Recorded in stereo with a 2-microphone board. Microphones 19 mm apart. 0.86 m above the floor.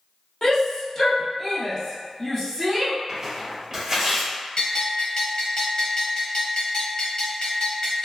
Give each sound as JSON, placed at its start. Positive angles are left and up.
{"t": 0.4, "sound": "a shout", "side_deg": 35, "distance_m": 0.9}
{"t": 3.1, "sound": "tearing paper", "side_deg": -30, "distance_m": 1.2}
{"t": 4.6, "sound": "a bell", "side_deg": 40, "distance_m": 1.3}